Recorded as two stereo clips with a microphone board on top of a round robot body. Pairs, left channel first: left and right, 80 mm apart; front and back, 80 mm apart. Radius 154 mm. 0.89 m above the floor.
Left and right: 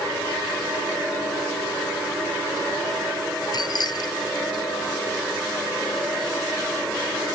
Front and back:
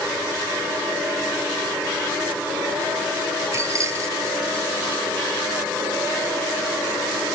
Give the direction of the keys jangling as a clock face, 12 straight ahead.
8 o'clock.